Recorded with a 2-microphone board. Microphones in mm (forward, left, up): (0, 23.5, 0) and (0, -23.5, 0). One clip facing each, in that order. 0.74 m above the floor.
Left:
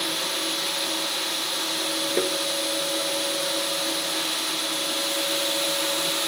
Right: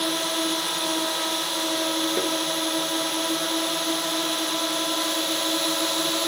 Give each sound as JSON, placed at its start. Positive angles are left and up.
{"t": 0.0, "sound": "a drone", "side_deg": -40}
{"t": 2.2, "sound": "tapping", "side_deg": 10}